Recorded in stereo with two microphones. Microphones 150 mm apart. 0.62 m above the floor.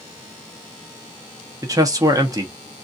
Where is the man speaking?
25° right (ahead or behind), 0.7 m.